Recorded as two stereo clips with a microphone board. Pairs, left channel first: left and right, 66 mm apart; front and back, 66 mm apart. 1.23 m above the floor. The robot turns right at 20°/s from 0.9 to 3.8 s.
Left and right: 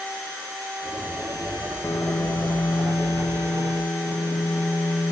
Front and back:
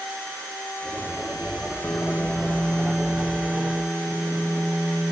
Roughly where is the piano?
Ahead left.